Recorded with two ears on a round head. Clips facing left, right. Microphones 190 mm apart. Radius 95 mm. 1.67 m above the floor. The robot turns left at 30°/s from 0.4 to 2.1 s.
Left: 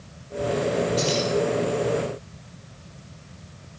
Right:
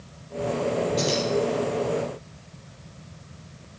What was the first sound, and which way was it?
Keys jangling, 5° left (ahead or behind).